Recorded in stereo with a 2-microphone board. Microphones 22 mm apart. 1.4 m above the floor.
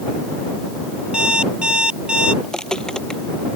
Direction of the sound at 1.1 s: 45° right (ahead or behind).